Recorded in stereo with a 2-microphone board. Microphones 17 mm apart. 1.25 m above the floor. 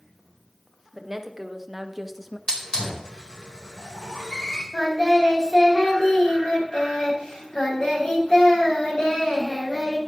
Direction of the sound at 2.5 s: 45° left (ahead or behind).